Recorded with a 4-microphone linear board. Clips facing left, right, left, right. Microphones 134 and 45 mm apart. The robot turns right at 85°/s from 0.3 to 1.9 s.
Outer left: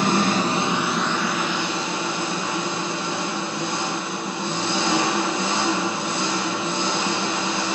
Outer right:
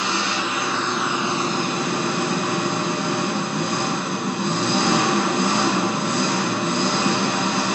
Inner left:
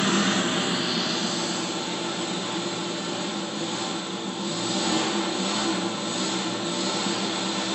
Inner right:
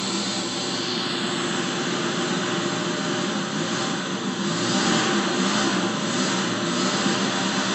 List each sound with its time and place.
0.0 s an engine running: 125° left, 1.1 m; by 7.8 s 100° right, 1.1 m